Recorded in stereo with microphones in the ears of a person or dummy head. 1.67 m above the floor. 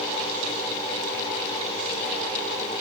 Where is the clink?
I don't hear a clink.